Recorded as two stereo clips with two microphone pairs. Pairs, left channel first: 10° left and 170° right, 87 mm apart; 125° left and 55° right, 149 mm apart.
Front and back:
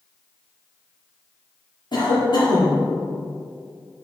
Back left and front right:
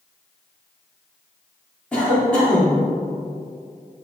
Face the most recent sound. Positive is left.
turn(degrees=45)